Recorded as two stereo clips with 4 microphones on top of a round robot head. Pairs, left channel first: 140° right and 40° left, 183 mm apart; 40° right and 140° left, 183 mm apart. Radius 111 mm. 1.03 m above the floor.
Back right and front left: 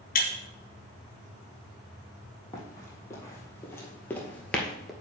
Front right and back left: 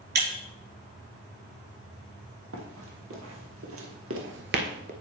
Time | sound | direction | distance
0.1 | breaking glass | 175° left | 2.5 m
2.5 | running footsteps | 145° left | 2.5 m